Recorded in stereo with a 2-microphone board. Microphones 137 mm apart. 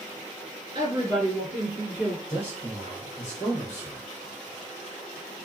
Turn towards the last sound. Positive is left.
turn(degrees=15)  # may be behind; listen again after turning